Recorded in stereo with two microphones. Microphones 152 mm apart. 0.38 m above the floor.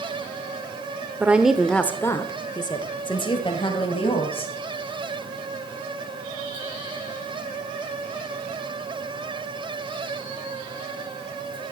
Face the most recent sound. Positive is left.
turn(degrees=35)  # may be behind; listen again after turning